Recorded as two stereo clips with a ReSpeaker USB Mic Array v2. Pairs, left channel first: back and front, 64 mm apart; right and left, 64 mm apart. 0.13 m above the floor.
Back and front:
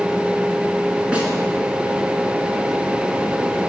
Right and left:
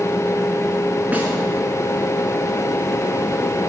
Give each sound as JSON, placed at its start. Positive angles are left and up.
{"t": 1.1, "sound": "a snare drum", "azimuth_deg": 55, "distance_m": 1.5}